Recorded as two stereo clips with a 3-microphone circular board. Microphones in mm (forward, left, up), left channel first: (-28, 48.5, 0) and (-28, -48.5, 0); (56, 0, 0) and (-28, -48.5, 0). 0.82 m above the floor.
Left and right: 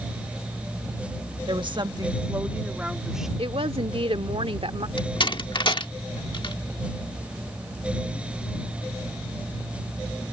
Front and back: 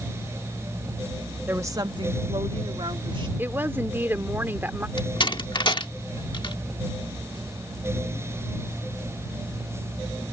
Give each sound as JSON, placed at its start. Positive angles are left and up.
{"t": 1.5, "sound": "a woman speaking", "azimuth_deg": -85}
{"t": 3.4, "sound": "a woman speaking", "azimuth_deg": -80}
{"t": 5.0, "sound": "a door slam", "azimuth_deg": 60}